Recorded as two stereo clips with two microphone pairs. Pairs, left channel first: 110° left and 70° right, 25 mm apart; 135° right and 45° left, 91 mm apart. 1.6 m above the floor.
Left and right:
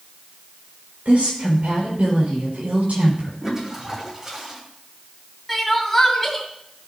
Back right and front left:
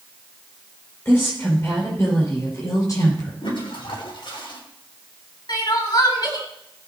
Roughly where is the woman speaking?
Right.